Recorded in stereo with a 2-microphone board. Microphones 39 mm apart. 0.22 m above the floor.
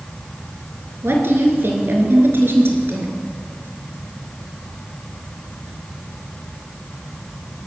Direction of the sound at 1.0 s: 70° right (ahead or behind).